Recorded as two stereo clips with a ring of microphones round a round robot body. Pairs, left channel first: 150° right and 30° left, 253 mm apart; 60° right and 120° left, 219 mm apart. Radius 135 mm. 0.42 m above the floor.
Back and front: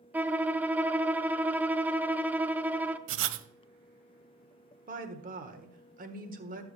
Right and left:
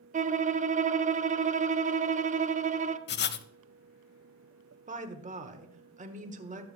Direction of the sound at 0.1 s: 110° left.